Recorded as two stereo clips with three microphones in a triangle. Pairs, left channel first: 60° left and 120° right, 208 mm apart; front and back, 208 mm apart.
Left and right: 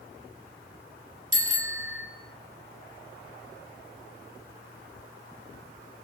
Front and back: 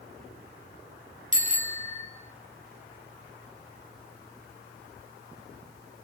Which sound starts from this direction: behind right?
A bicycle bell, at 1.3 s.